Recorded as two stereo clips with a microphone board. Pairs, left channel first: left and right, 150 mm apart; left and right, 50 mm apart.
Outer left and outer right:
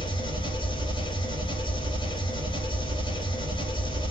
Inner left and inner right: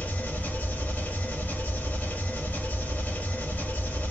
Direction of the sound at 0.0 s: 35° left (ahead or behind).